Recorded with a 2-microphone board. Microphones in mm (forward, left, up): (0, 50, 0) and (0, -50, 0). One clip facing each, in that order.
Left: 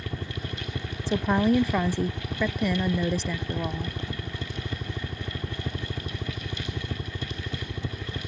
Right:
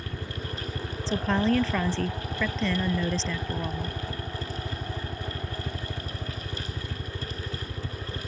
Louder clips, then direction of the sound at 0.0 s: Left 1 dB; 30° left (ahead or behind).